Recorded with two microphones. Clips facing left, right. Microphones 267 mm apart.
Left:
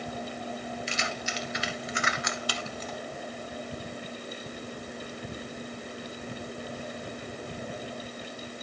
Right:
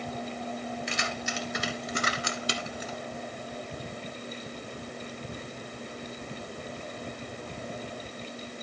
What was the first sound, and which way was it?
Keys jangling, 60° right (ahead or behind).